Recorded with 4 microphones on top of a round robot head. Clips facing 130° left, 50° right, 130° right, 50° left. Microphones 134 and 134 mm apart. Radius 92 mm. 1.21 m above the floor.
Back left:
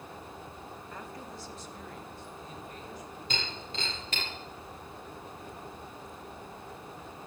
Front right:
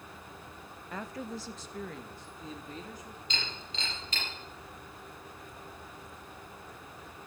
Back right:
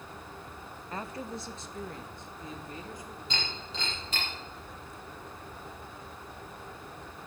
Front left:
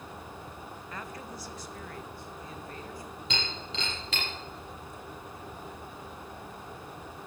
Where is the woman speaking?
70° right, 0.9 m; by 3.2 s 55° right, 3 m.